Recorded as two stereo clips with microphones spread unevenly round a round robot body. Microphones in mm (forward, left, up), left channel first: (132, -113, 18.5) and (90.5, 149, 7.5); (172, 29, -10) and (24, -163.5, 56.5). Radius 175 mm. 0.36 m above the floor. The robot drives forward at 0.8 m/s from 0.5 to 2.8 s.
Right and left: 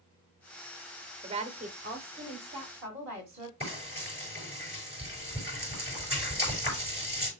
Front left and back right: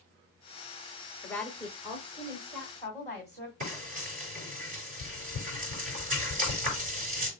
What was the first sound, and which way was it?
A woman speaking, 70° left.